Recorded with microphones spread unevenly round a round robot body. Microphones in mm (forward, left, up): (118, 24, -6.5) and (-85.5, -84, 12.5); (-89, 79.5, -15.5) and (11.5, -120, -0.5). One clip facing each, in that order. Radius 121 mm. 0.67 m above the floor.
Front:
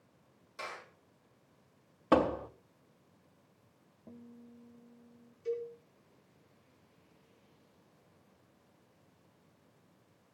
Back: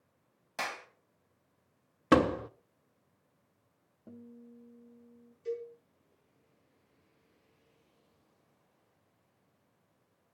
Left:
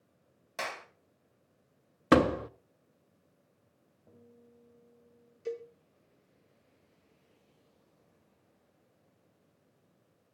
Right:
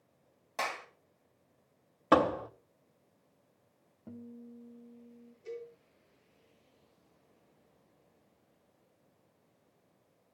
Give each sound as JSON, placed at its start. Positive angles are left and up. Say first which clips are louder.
{"t": 0.6, "sound": "a clap", "louder": "back 4 dB, right 1 dB", "azimuth_deg": -170, "distance_m": 3.0}
{"t": 2.1, "sound": "a door slam", "louder": "back 3 dB, left 3 dB", "azimuth_deg": 155, "distance_m": 0.6}
{"t": 4.1, "sound": "a guitar", "louder": "back 2 dB, right 11 dB", "azimuth_deg": -70, "distance_m": 1.5}
{"t": 5.5, "sound": "a cowbell", "louder": "front 1 dB, left 5 dB", "azimuth_deg": 110, "distance_m": 5.0}